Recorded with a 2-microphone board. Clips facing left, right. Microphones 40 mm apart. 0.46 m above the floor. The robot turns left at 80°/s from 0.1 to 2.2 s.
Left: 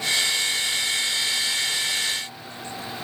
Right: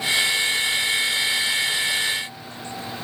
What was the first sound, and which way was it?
Only background noise.